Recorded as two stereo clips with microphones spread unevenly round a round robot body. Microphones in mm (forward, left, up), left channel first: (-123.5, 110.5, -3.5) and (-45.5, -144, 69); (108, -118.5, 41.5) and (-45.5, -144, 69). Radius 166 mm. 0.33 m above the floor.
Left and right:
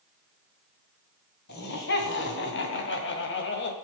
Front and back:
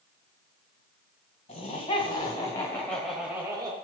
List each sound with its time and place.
1.5 s laughter: 60° left, 3 m; by 3.7 s 115° left, 1.7 m